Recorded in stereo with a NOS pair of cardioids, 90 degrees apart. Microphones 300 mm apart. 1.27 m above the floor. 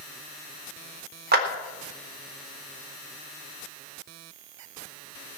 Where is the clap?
30° right, 3.5 m.